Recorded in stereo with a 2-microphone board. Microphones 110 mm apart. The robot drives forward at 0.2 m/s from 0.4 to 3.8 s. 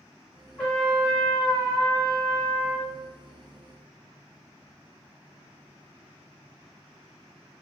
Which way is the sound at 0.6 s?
10° left (ahead or behind).